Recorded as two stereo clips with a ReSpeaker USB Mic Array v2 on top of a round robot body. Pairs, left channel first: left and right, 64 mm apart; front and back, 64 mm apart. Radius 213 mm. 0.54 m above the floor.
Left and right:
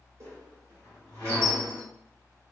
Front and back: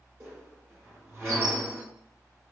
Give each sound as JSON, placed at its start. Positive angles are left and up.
{"t": 0.2, "sound": "a squeak", "azimuth_deg": -130, "distance_m": 1.4}